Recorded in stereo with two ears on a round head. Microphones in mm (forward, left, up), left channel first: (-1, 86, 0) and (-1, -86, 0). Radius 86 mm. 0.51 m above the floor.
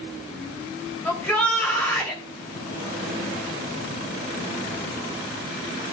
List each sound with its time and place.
1.1 s a shout: 5° left (ahead or behind), 3 m